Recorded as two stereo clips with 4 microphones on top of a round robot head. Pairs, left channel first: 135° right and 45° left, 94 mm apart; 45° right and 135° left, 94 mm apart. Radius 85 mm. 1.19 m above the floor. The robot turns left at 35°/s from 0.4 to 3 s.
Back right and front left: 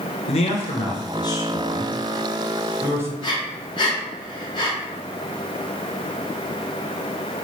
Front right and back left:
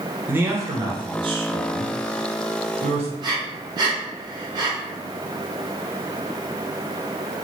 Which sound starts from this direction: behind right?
A man speaking, at 0.3 s.